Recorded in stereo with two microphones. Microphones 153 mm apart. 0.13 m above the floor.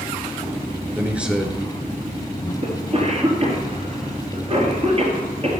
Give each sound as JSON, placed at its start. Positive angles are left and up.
{"t": 0.9, "sound": "a man speaking", "side_deg": -15, "distance_m": 1.7}
{"t": 2.6, "sound": "a cough", "side_deg": -40, "distance_m": 2.5}